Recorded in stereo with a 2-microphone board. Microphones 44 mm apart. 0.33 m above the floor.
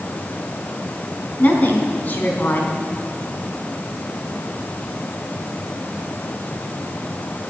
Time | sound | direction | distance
1.4 | a woman speaking | 45° left (ahead or behind) | 3.5 m